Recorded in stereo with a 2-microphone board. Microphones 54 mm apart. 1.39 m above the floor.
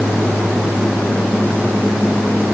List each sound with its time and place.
Only background noise.